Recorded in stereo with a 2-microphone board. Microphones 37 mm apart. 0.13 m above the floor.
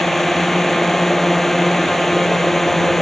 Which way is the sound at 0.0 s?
10° left (ahead or behind).